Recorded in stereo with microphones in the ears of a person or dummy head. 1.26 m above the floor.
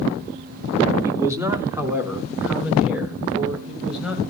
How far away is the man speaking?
About 1.8 m.